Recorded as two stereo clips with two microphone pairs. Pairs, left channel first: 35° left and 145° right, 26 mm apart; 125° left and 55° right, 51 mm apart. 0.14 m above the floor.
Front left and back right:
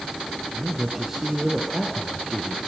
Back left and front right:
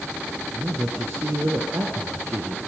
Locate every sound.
0.5 s a man speaking: 70° right, 3 m; by 2.6 s 40° right, 2.5 m